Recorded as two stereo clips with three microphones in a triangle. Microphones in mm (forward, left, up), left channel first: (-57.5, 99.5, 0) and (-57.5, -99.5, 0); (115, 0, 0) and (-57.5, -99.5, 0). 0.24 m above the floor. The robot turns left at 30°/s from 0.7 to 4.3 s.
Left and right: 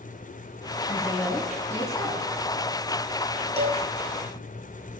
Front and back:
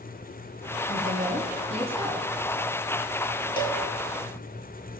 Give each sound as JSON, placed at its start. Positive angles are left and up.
{"t": 0.9, "sound": "a woman speaking", "azimuth_deg": -170, "distance_m": 2.5}
{"t": 3.6, "sound": "a cowbell", "azimuth_deg": -35, "distance_m": 1.0}